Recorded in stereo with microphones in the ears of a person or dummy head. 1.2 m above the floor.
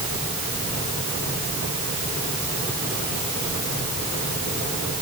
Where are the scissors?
I don't hear scissors.